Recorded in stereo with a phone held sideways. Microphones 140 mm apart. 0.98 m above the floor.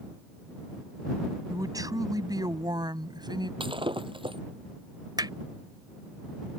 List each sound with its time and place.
1.5 s a man speaking: 25° right (ahead or behind); by 3.5 s 30° right (ahead or behind)
3.6 s breaking glass: 35° right (ahead or behind)
5.2 s hammering: 30° right (ahead or behind)